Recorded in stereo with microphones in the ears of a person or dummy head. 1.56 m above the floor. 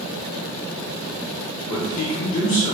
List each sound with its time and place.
1.7 s a man speaking: 70° left (ahead or behind), 0.9 m